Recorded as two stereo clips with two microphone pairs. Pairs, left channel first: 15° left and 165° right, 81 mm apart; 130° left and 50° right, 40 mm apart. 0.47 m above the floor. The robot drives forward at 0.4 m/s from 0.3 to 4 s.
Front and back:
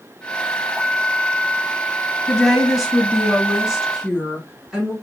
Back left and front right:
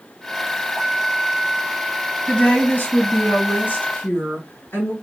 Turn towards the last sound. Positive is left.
turn(degrees=120)